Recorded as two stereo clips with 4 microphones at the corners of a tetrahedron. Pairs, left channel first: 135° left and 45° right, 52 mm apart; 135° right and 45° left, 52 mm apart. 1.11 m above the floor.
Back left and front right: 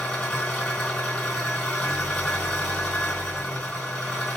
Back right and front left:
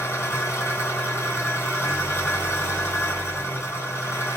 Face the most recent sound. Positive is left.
turn(degrees=-155)